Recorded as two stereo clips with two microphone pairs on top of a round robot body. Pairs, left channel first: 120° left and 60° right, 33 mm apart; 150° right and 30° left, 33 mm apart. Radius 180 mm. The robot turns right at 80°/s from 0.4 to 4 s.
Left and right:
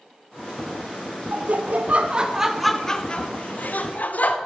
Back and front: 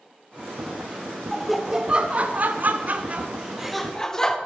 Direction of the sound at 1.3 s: 75° right.